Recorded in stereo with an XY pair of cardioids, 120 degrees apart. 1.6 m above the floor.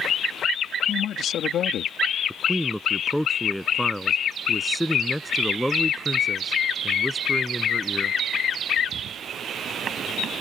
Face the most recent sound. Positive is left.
turn(degrees=0)